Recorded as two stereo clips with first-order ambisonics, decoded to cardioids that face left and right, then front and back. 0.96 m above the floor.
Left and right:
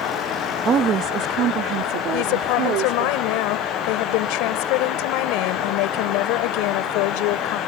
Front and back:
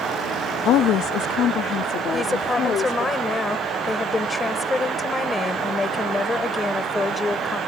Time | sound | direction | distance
0.7 | a woman speaking | 30° right | ?
2.1 | a woman speaking | 80° left | ?